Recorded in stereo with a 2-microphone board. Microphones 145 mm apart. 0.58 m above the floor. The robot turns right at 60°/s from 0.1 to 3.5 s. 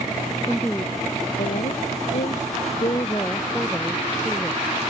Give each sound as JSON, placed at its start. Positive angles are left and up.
{"t": 0.5, "sound": "a woman speaking", "azimuth_deg": 0}